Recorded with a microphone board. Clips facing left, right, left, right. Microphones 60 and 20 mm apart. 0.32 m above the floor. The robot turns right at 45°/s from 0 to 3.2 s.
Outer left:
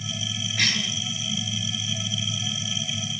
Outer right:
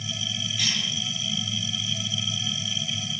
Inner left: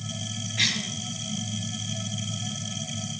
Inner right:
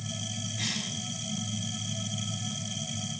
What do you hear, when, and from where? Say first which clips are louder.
0.6 s a cough: outer left 5 dB, inner left 9 dB; 60° left (ahead or behind), 5 m; by 0.9 s 45° left (ahead or behind), 5 m